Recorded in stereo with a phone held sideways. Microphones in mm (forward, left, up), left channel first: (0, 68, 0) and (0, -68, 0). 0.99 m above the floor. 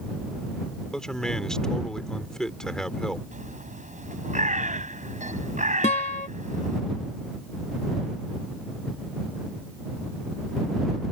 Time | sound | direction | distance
0.9 | a man speaking | 5° left (ahead or behind) | ?
3.3 | a bird | 70° right (ahead or behind) | ?
5.8 | a guitar | 65° left (ahead or behind) | ?